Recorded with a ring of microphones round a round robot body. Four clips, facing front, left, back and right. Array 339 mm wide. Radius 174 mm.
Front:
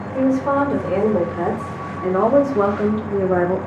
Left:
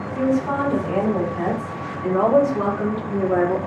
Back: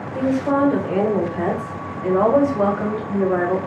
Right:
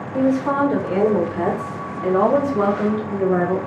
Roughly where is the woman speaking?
Ahead right.